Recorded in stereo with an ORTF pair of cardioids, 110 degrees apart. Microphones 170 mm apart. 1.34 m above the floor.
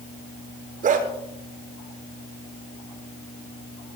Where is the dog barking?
55° right, 7 m.